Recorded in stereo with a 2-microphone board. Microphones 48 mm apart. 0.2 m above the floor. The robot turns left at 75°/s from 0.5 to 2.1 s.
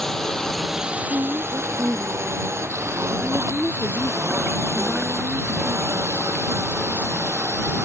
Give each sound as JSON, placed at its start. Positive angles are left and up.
{"t": 0.0, "sound": "a drone", "side_deg": 10}
{"t": 1.1, "sound": "a woman speaking", "azimuth_deg": -75}